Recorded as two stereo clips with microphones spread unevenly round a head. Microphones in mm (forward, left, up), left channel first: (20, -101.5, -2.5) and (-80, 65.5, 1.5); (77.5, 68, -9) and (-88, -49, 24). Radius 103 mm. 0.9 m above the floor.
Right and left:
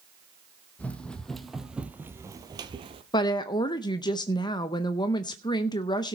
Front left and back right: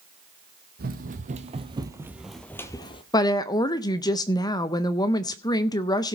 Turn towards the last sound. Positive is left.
turn(degrees=-5)